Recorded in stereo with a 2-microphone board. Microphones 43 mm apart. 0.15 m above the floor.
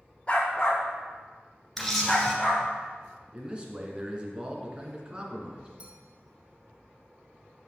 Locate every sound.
0.3 s a dog barking: 25° left (ahead or behind), 1.7 m; by 2.6 s 5° left (ahead or behind), 3 m
1.8 s a camera shutter: 5° left (ahead or behind), 1.8 m
3.3 s a man speaking: 25° right (ahead or behind), 1.5 m
5.8 s a clink: 25° right (ahead or behind), 2.5 m